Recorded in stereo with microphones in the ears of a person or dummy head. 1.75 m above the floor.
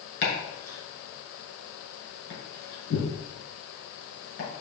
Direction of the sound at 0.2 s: 50° left (ahead or behind).